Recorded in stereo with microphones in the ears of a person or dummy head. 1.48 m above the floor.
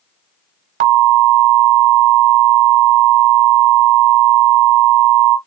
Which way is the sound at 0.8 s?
45° right (ahead or behind).